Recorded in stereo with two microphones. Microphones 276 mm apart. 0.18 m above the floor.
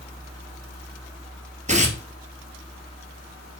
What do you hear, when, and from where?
1.7 s tearing paper: 25° right (ahead or behind), 1.7 m